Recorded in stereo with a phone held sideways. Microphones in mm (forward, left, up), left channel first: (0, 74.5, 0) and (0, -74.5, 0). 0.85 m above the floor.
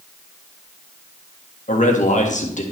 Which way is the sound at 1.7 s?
55° left (ahead or behind).